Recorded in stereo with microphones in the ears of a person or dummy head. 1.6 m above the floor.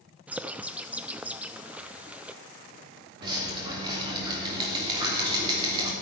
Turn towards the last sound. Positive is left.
turn(degrees=-25)  # may be behind; listen again after turning